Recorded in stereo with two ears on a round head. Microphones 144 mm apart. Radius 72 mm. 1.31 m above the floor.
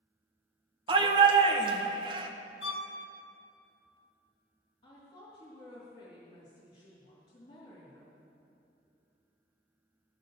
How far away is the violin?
About 1.3 m.